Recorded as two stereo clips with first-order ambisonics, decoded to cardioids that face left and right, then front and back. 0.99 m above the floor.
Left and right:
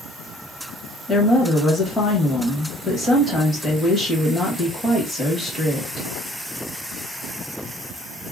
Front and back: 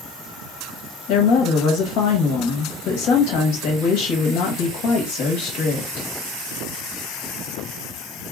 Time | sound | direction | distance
1.1 | a woman speaking | 10° left | 1.3 m